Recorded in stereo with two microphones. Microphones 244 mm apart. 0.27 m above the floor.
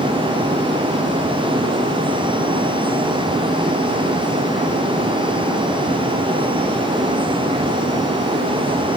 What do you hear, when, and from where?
Only background noise.